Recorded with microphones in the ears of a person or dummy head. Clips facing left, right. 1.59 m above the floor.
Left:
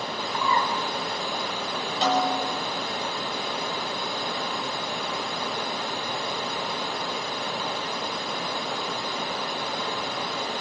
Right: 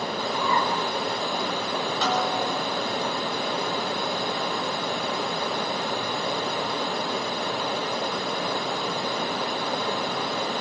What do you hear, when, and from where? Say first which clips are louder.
0.3 s a bird: even; 65° left (ahead or behind), 5.5 m
2.0 s a snare drum: left 3 dB; 15° left (ahead or behind), 6 m